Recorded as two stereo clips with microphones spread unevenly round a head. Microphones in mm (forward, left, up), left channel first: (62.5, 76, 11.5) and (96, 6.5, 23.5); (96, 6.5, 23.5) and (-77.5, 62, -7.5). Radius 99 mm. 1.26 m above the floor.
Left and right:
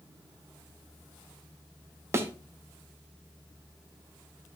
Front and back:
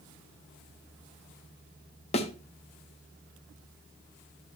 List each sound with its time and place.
2.1 s a thud: 40° right, 0.7 m